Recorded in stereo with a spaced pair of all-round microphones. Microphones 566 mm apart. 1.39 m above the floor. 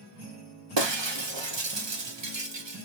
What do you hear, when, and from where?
0.8 s breaking glass: 50° right (ahead or behind), 1.0 m